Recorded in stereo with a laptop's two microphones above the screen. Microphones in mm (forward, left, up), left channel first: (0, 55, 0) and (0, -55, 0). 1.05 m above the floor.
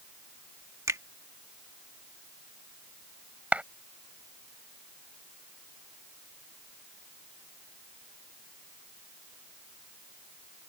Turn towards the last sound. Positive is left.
turn(degrees=-10)  # may be behind; listen again after turning